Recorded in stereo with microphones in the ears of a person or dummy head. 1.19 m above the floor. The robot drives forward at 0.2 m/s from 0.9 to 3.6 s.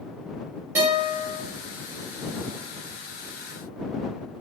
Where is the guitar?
10° right (ahead or behind), 0.9 m.